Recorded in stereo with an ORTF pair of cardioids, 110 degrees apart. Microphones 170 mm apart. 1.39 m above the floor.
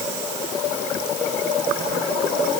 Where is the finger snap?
No finger snap in this recording.